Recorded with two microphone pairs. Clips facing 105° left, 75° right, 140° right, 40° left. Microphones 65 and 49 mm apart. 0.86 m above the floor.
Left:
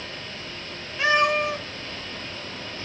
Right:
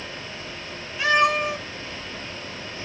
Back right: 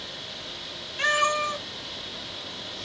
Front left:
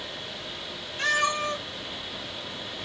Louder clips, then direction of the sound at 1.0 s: Right 1 dB, back right 2 dB; 165° left.